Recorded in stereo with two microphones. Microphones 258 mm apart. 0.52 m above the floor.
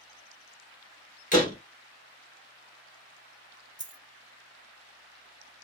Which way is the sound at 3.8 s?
50° right (ahead or behind).